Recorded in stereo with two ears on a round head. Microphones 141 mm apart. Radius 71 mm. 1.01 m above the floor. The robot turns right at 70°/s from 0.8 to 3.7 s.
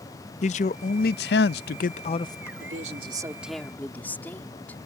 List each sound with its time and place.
0.4 s a man speaking: 50° left; by 2.5 s 165° left
2.6 s a woman speaking: 65° right; by 4.8 s 10° left